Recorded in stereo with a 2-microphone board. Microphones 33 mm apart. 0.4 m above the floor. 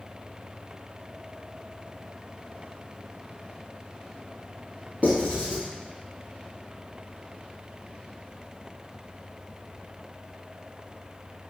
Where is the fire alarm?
No fire alarm in this recording.